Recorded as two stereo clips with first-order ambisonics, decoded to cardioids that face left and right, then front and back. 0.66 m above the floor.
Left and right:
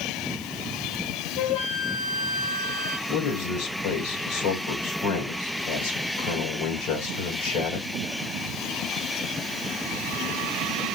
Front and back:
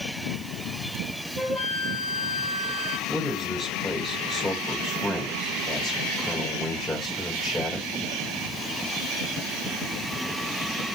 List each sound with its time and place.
1.4 s a flute: 80° left, 3.5 m
3.1 s a man speaking: 80° left, 2.5 m